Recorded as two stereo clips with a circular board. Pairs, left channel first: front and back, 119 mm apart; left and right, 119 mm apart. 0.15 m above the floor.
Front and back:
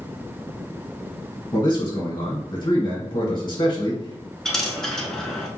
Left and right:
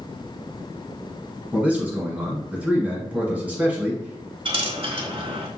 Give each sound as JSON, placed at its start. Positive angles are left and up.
{"t": 1.5, "sound": "a man speaking", "azimuth_deg": -15, "distance_m": 1.4}
{"t": 4.5, "sound": "a dropped coin", "azimuth_deg": -85, "distance_m": 0.8}